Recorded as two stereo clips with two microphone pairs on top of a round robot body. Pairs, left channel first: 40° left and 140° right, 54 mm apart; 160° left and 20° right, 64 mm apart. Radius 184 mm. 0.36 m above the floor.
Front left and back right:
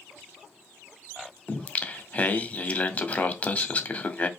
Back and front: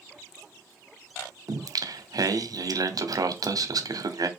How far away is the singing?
About 1.0 m.